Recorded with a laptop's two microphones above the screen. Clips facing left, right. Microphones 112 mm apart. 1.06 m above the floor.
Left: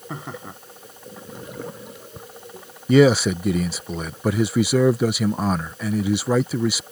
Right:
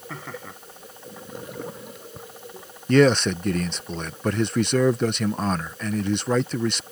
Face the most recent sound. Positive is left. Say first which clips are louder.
# left 2 dB
turn(degrees=10)  # may be behind; listen again after turning